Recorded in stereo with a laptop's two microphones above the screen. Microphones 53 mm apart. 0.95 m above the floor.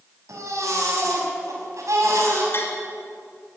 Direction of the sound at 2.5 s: 50° left (ahead or behind).